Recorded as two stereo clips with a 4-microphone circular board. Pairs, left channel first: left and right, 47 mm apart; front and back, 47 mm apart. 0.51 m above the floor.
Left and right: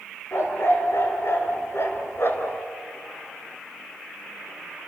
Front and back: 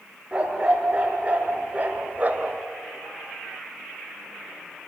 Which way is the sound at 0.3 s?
115° left.